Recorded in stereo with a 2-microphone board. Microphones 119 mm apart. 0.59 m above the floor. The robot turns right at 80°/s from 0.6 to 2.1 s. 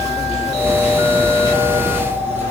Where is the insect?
80° left, 3.5 m; by 2.5 s 160° right, 3.5 m.